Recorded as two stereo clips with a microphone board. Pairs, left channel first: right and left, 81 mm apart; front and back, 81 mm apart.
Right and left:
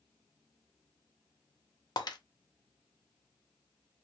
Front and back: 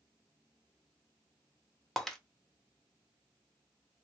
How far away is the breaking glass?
About 0.6 m.